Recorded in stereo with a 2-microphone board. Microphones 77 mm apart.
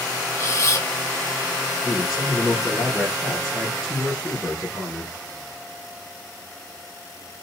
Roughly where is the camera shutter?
Left.